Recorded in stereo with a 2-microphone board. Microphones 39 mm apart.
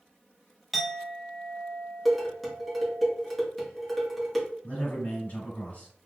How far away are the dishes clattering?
About 1.1 m.